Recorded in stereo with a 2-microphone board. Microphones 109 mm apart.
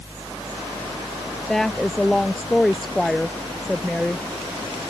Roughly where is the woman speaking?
Centre.